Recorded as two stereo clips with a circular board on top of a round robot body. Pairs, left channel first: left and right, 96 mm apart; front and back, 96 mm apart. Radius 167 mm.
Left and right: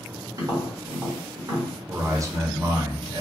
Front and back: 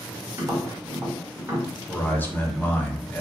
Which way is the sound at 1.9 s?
60° right.